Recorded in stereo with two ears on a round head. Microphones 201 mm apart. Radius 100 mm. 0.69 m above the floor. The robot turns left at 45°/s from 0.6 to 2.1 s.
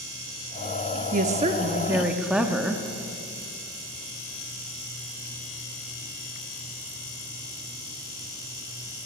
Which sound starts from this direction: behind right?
A woman speaking, at 1.1 s.